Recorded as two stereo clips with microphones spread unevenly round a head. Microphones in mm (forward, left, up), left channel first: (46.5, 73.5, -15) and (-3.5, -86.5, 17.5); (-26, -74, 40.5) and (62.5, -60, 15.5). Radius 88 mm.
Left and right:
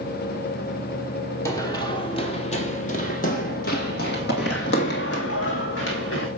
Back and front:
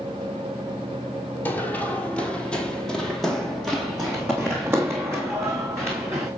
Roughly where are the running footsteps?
Behind left.